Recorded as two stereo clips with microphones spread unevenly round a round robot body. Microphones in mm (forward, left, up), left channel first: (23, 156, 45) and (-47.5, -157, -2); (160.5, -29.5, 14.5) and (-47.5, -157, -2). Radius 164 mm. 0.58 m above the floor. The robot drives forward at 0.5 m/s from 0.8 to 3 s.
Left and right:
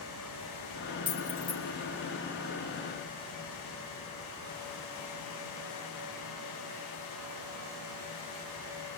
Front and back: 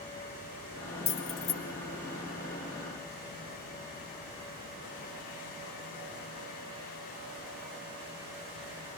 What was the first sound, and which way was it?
Keys jangling, straight ahead.